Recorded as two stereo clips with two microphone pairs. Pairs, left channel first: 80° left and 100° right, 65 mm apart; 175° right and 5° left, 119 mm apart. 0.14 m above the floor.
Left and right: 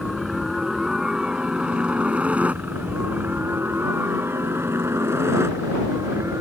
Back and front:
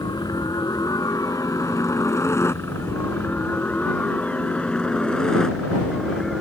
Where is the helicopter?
170° left; by 6.4 s 85° right.